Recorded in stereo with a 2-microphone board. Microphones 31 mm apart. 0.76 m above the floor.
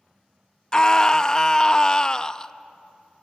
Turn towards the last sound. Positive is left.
turn(degrees=20)  # may be behind; listen again after turning